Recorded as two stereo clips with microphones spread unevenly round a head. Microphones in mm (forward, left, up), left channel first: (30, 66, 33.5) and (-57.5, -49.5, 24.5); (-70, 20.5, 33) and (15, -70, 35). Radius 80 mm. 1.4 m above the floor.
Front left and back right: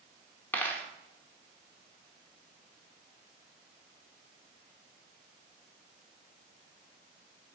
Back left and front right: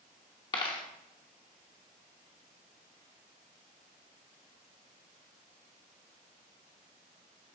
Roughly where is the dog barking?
No dog barking in this recording.